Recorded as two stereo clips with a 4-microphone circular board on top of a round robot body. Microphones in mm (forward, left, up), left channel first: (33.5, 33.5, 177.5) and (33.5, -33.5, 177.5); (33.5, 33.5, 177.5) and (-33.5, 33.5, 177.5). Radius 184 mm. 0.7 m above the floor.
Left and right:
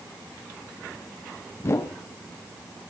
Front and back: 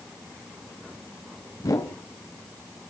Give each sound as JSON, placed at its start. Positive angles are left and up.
{"t": 1.6, "sound": "a whoosh", "azimuth_deg": 40, "distance_m": 1.1}